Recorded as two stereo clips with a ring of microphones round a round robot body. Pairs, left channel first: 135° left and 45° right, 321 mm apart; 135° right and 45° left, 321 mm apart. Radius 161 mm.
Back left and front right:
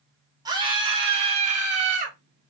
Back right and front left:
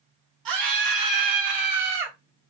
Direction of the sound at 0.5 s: 35° left.